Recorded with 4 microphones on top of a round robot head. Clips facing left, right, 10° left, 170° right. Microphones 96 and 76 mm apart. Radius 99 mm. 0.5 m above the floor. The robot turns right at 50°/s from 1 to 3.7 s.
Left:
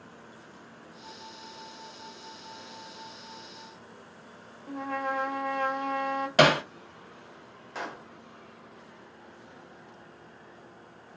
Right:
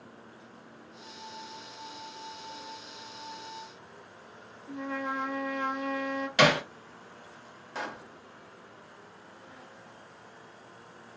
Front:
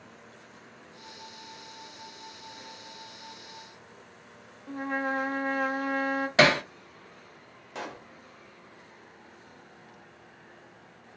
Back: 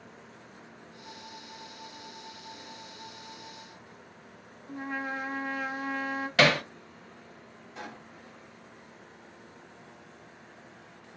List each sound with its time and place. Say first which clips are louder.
4.7 s a trumpet: left 3 dB, front 4 dB; 45° left, 0.9 m
6.4 s hammering: left 2 dB, front 2 dB; 65° left, 0.9 m
7.8 s a pop: even, front 5 dB; straight ahead, 0.6 m